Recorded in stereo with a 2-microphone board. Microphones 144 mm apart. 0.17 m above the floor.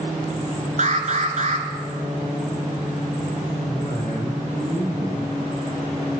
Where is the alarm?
55° right (ahead or behind), 1.4 m.